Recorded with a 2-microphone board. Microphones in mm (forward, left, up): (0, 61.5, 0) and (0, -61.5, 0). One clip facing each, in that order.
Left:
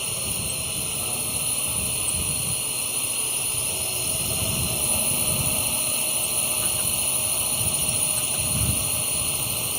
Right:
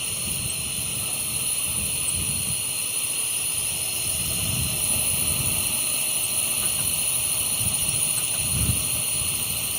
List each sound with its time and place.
0.0 s a drone: 35° left (ahead or behind)